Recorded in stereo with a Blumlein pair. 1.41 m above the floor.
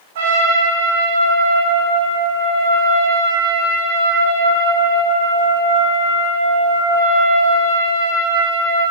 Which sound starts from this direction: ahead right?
A trumpet, at 0.1 s.